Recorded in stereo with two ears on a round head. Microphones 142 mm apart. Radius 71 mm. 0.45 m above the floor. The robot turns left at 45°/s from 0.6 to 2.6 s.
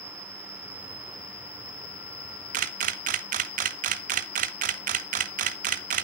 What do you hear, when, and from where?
0.0 s an insect: 145° left, 3.5 m; by 6.0 s 55° left, 3.5 m
2.5 s a camera shutter: 45° right (ahead or behind), 0.6 m; by 6.0 s 50° right (ahead or behind), 0.6 m